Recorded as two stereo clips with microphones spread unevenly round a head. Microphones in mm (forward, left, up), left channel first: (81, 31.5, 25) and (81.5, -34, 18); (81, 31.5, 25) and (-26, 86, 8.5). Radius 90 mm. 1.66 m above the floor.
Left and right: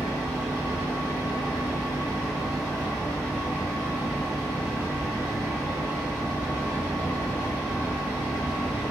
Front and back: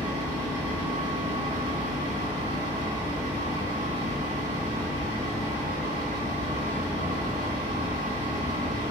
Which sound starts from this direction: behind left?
A fan, at 0.0 s.